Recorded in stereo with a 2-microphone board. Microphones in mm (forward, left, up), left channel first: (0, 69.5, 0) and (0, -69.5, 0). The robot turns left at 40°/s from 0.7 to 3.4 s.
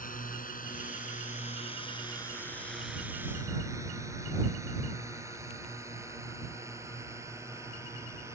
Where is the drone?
80° left; by 8.3 s 20° right (ahead or behind).